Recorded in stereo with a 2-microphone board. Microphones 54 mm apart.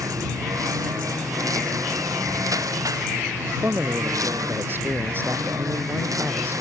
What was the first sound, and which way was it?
A lawn mower, 85° right.